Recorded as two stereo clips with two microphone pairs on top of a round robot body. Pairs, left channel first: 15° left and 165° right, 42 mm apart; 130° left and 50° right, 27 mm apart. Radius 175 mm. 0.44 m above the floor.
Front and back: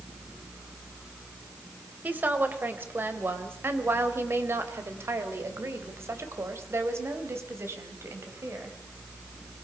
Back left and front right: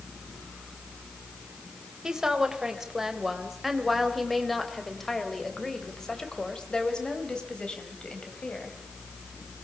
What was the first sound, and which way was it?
A woman speaking, 120° right.